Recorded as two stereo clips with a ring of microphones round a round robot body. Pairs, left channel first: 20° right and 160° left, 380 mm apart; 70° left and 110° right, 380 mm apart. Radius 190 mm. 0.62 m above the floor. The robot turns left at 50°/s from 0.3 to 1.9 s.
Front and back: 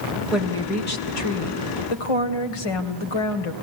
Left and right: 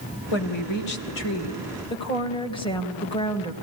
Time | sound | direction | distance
0.3 | a woman speaking | 70° left | 3.5 m